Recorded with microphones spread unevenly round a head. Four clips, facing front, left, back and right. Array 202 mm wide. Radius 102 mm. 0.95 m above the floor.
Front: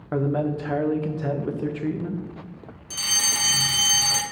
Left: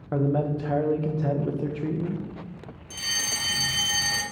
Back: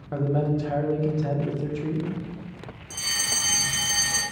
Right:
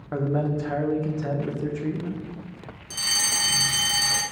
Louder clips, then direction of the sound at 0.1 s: Left 1 dB, front 1 dB; 115° left.